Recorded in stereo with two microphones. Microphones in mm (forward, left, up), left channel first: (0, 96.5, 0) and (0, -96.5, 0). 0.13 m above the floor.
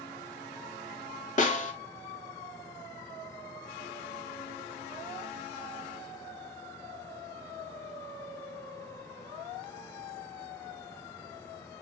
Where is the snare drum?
40° left (ahead or behind), 0.6 m.